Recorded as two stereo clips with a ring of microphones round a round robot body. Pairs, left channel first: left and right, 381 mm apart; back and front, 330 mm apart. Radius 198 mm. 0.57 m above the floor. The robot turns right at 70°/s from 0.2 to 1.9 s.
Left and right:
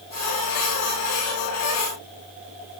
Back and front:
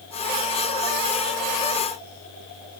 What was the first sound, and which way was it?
Only background noise.